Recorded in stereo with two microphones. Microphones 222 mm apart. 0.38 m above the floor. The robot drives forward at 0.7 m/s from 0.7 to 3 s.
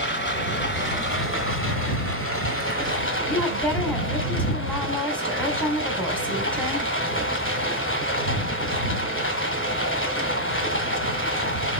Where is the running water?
55° left (ahead or behind), 2 m; by 11.8 s 65° left (ahead or behind), 2.0 m.